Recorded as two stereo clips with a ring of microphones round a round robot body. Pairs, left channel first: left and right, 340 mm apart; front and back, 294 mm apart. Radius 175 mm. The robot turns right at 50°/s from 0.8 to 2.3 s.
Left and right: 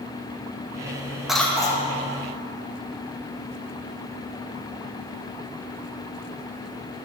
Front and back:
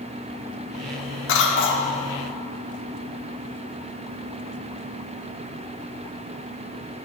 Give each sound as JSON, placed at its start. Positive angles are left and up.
{"t": 1.3, "sound": "a cough", "azimuth_deg": 0, "distance_m": 1.0}